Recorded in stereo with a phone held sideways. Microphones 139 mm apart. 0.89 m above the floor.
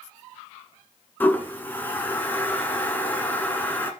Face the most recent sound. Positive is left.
turn(degrees=15)  # may be behind; listen again after turning